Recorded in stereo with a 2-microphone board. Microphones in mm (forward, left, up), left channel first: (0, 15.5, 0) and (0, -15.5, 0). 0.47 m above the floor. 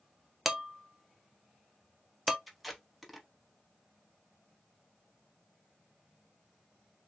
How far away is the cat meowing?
No cat meowing in this recording.